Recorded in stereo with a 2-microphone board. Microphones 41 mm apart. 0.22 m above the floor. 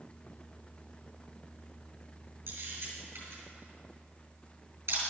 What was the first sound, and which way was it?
A camera shutter, 60° right (ahead or behind).